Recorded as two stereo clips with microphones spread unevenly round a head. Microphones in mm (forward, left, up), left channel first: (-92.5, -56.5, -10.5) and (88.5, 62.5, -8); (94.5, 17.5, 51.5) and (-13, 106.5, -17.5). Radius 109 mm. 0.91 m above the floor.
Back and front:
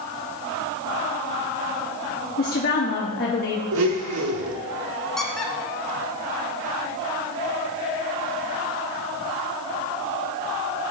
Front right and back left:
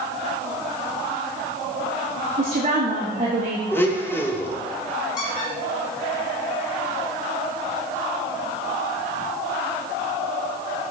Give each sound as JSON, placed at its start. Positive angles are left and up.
{"t": 2.4, "sound": "a woman speaking", "azimuth_deg": 165, "distance_m": 1.0}
{"t": 3.7, "sound": "a blender", "azimuth_deg": 35, "distance_m": 1.2}
{"t": 5.2, "sound": "a squeak", "azimuth_deg": -60, "distance_m": 1.2}